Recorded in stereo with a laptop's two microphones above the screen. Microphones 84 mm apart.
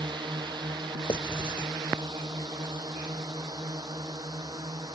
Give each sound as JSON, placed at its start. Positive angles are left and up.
{"t": 0.0, "sound": "a drone", "side_deg": -65}
{"t": 1.1, "sound": "writing", "side_deg": 85}